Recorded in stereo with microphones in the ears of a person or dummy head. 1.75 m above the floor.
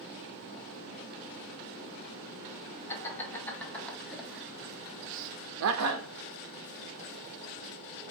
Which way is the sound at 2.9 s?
15° left (ahead or behind).